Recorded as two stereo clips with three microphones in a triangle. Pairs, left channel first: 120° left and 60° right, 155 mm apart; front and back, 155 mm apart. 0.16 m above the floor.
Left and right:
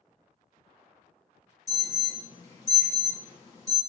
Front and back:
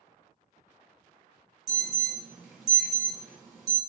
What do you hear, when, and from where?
1.7 s an alarm: 100° left, 1.6 m